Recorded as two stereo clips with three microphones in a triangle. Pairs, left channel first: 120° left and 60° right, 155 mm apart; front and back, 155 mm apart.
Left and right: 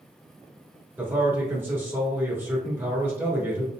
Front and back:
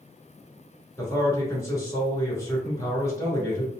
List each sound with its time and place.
1.0 s a man speaking: 20° right, 1.1 m